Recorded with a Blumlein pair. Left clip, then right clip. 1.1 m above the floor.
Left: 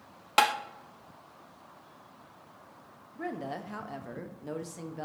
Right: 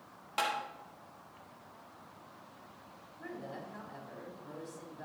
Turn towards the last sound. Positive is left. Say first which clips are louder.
# left 8 dB
turn(degrees=50)